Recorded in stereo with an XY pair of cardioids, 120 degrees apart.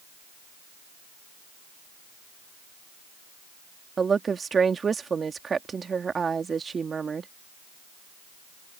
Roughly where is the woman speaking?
Ahead right.